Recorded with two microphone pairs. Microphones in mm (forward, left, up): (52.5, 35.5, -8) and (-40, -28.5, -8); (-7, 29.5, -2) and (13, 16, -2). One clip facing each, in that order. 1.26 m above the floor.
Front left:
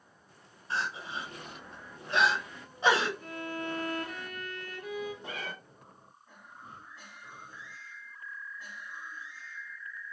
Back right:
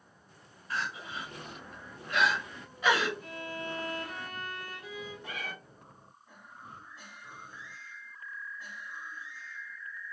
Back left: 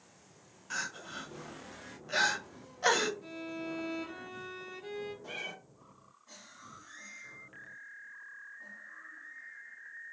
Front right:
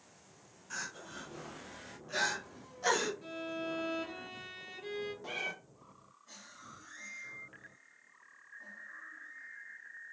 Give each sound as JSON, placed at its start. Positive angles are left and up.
{"t": 0.7, "sound": "crying", "azimuth_deg": 90, "distance_m": 0.7}
{"t": 3.2, "sound": "a violin", "azimuth_deg": 25, "distance_m": 1.0}
{"t": 5.2, "sound": "a cat meowing", "azimuth_deg": -10, "distance_m": 1.0}